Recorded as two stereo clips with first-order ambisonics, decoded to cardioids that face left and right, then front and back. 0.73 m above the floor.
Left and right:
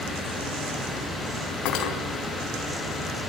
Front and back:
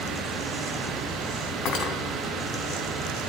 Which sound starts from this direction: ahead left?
Cutlery clinking, at 1.6 s.